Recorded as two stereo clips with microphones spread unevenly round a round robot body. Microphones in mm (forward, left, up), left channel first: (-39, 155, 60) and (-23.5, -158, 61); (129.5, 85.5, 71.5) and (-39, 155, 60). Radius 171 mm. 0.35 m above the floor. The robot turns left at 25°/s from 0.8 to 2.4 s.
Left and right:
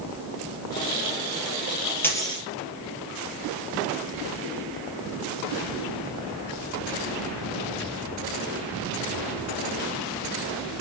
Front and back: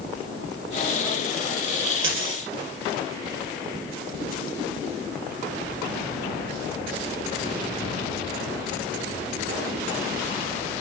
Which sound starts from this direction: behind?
A dropped coin, at 2.0 s.